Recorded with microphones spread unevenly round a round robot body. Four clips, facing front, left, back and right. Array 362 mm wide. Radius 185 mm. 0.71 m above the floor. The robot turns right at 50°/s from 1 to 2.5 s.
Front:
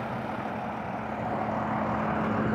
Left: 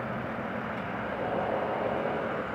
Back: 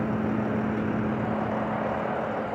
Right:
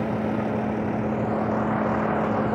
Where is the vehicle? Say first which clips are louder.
Right 9 dB, back 6 dB; 135° right; by 2.6 s 60° right.